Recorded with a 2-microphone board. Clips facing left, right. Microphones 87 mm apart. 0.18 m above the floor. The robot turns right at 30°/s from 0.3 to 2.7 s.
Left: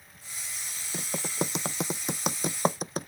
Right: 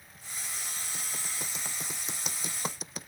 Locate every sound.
0.9 s typing on a keyboard: 75° left (ahead or behind); by 3.1 s 50° left (ahead or behind)